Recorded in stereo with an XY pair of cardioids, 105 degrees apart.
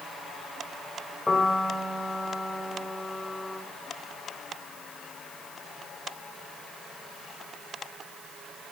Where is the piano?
25° left, 3.5 m.